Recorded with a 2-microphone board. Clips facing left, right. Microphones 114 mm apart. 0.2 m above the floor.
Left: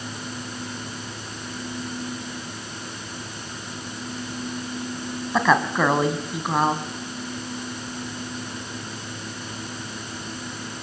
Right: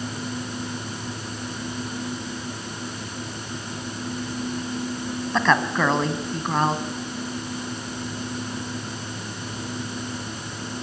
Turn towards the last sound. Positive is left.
turn(degrees=10)  # may be behind; listen again after turning